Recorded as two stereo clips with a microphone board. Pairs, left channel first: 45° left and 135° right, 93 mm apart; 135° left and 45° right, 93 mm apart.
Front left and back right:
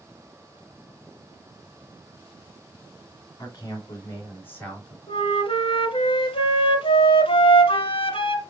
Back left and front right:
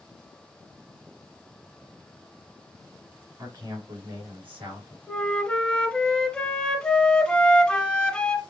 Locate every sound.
3.4 s a man speaking: straight ahead, 3 m; by 5.0 s 35° right, 3 m
5.1 s a flute: 55° left, 0.9 m